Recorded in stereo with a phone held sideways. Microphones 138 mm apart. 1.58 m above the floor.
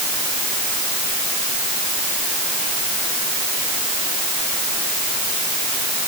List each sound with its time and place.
Only background noise.